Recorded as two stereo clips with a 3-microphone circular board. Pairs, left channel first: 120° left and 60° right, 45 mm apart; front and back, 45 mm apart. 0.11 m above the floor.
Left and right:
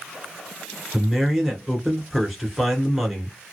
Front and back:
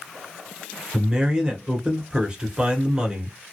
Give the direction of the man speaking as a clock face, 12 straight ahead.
5 o'clock.